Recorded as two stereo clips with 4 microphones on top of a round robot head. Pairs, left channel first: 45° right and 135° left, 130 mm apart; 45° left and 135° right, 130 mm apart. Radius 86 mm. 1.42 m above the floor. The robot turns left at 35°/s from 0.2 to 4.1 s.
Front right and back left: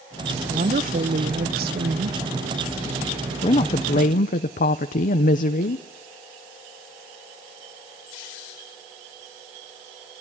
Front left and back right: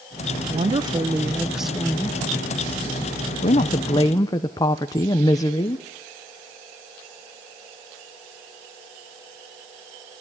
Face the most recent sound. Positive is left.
turn(degrees=-20)